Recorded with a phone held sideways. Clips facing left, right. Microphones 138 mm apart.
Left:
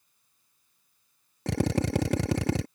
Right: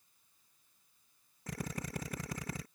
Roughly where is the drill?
Left.